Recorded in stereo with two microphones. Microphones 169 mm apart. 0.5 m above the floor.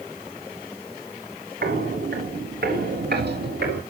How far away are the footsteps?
About 3 m.